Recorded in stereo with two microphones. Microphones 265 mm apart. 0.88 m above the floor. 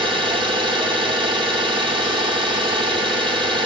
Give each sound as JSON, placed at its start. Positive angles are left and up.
{"t": 0.0, "sound": "an engine running", "side_deg": -20, "distance_m": 1.3}